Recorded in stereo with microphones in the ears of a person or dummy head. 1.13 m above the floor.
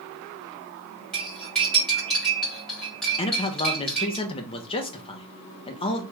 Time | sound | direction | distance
1.1 | cutlery clinking | 10° left (ahead or behind) | 2 m
3.2 | a man speaking | 35° left (ahead or behind) | 0.5 m